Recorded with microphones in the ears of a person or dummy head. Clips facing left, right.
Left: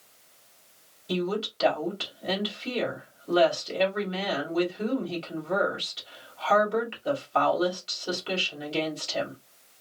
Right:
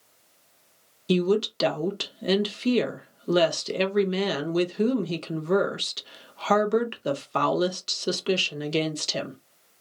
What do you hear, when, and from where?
1.1 s a woman speaking: 55° right (ahead or behind), 0.9 m